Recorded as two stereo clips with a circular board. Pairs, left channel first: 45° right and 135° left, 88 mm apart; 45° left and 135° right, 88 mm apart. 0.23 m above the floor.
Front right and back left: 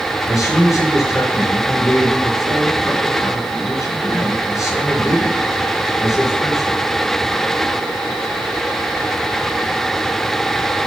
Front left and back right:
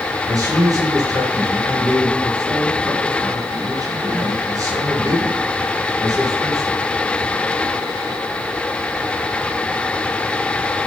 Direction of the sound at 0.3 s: 95° right.